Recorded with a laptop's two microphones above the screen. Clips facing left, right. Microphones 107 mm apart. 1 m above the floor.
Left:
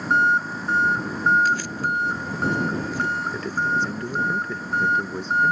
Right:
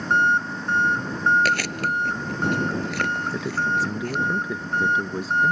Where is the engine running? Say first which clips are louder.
Even; 5° left (ahead or behind).